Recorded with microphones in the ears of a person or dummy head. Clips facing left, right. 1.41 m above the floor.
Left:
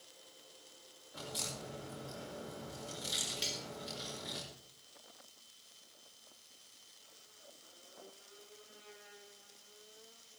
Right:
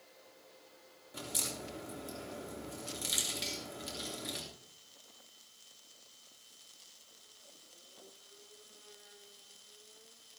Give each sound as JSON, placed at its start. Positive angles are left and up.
{"t": 1.1, "sound": "a crack", "side_deg": -30, "distance_m": 3.0}
{"t": 3.4, "sound": "cutlery clinking", "side_deg": 5, "distance_m": 2.0}